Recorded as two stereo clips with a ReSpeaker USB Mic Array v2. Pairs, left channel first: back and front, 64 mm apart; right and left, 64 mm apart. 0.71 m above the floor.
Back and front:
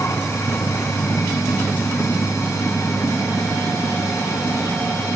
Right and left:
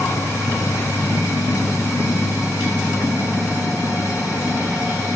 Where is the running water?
135° right, 5.5 m.